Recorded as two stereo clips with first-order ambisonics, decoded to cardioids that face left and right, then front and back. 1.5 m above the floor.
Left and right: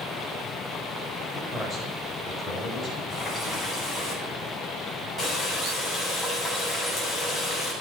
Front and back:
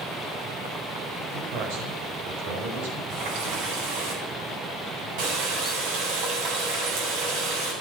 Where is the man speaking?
170° left, 6.5 m; by 3.0 s 160° left, 7.5 m.